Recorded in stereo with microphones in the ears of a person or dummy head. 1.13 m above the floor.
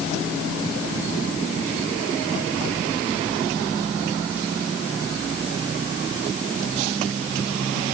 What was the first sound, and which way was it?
Only background noise.